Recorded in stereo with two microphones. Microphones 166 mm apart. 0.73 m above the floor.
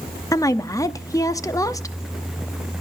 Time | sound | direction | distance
0.3 | a woman speaking | 20° left (ahead or behind) | 0.8 m